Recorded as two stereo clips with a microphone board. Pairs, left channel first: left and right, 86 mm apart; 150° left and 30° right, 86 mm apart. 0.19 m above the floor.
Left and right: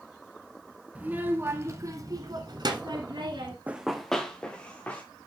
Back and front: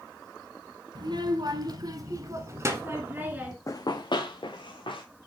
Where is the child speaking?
20° right, 1.2 m; by 3.6 s 100° right, 1.4 m.